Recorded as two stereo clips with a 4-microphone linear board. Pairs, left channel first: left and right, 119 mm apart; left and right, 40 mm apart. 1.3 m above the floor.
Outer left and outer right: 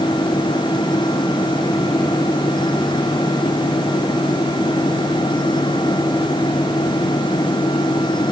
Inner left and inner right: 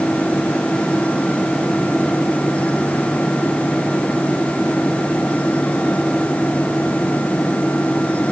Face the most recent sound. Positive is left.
No sound to turn to.